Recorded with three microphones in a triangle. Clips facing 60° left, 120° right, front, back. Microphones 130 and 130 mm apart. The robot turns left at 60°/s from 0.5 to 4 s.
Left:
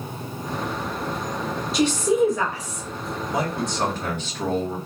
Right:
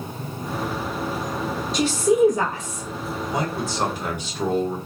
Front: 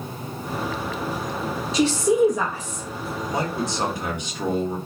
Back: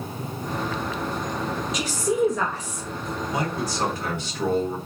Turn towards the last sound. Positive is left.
turn(degrees=-55)